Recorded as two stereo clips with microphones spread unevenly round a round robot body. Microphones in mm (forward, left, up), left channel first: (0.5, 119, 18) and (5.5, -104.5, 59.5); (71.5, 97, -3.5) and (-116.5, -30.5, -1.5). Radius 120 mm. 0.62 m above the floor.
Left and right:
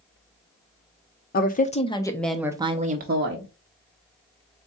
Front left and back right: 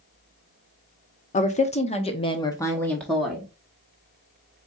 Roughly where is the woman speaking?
Left.